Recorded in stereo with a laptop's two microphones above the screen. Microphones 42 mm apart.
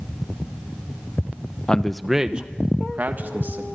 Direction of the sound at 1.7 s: 20° left (ahead or behind).